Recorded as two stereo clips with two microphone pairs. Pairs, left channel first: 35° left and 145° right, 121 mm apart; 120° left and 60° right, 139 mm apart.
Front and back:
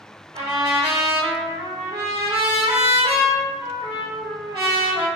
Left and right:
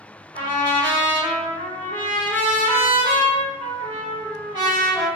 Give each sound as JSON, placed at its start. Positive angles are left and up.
{"t": 0.3, "sound": "a trumpet", "azimuth_deg": -110, "distance_m": 1.9}